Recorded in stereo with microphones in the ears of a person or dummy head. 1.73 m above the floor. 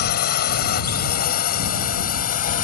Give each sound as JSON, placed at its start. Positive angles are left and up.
{"t": 0.0, "sound": "a drone", "side_deg": 60}